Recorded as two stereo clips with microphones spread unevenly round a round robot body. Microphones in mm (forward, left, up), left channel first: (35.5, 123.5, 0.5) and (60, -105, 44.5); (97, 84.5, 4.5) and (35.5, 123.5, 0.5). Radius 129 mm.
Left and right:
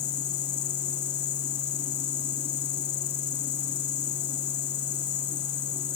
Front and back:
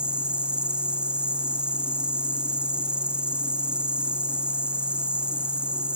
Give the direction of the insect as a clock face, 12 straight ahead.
10 o'clock.